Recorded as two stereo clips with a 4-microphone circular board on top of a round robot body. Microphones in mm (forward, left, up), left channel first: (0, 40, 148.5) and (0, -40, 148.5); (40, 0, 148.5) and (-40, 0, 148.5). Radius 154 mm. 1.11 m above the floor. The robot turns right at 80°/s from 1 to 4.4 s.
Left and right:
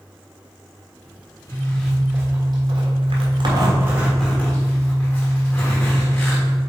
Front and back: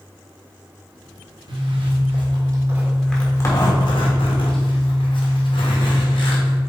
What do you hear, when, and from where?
1.5 s a zipper: 150° left, 1.6 m; by 6.6 s 20° left, 1.6 m